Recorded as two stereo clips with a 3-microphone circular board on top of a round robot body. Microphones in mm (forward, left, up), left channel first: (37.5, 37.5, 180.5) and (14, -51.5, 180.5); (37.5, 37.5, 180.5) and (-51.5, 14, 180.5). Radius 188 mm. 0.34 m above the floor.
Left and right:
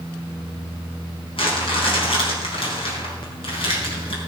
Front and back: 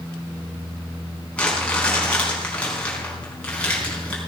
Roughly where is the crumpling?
Left.